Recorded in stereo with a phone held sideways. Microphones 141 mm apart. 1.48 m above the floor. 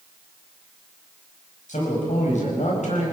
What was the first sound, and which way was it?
A man speaking, 60° left (ahead or behind).